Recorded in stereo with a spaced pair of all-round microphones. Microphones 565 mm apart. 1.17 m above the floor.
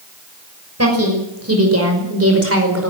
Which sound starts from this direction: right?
A woman speaking, at 0.8 s.